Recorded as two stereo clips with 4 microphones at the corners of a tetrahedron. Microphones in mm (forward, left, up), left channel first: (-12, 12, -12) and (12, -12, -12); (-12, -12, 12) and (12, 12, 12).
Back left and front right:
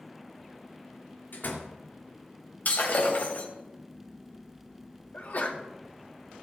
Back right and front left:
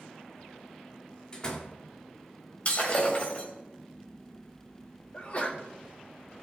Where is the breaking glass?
175° left, 3 m.